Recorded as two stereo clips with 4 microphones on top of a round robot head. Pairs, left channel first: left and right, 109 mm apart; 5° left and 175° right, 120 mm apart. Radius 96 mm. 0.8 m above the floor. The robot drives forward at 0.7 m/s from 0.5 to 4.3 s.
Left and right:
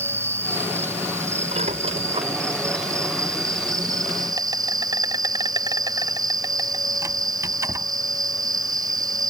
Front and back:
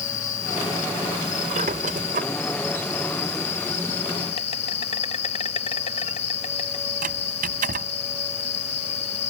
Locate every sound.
0.0 s an insect: 20° right; by 9.3 s 35° right
1.5 s a squeak: 130° right; by 7.9 s 160° right